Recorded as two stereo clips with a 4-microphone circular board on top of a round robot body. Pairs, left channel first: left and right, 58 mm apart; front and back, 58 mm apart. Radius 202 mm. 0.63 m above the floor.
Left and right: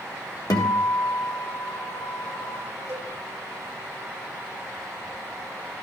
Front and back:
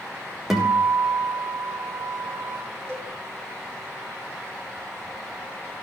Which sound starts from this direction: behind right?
A cowbell, at 2.9 s.